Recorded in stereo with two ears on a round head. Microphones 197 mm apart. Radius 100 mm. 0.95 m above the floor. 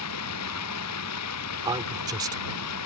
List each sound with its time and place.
0.0 s running water: 80° left
1.6 s a man speaking: 15° right (ahead or behind)